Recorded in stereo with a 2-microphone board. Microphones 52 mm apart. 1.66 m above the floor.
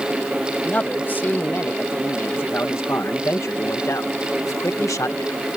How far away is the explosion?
No explosion in this recording.